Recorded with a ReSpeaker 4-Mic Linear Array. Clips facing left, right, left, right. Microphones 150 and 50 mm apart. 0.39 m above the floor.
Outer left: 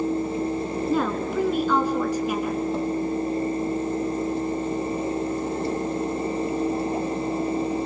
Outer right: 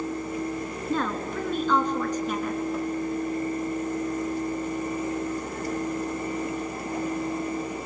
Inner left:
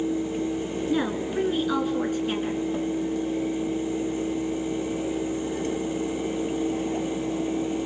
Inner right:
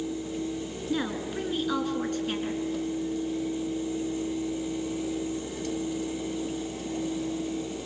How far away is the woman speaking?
About 4.5 m.